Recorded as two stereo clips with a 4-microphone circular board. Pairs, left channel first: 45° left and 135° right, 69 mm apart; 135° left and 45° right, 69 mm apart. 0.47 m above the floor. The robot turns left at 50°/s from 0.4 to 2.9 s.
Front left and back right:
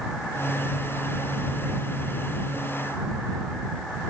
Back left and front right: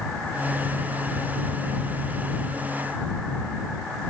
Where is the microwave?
No microwave in this recording.